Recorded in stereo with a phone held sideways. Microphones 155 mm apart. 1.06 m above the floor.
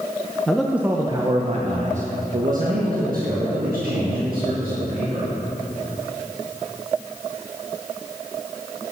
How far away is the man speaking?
About 0.6 m.